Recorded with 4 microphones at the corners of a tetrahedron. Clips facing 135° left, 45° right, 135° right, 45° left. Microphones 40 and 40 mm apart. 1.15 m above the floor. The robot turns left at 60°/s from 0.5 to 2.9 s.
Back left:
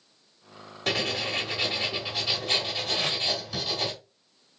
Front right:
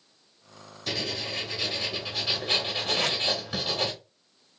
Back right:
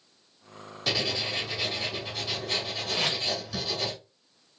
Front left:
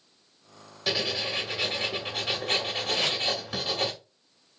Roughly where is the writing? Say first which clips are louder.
Back left 4 dB, even; behind left.